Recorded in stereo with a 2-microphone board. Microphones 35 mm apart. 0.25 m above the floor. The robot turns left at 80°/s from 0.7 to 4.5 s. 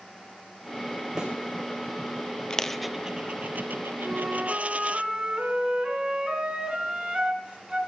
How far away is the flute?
About 2.5 m.